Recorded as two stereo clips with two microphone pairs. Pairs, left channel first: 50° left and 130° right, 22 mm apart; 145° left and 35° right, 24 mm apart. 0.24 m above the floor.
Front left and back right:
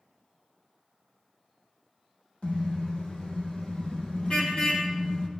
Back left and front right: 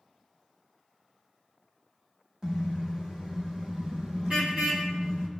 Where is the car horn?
20° left, 5.5 m; by 5.3 s 5° right, 4 m.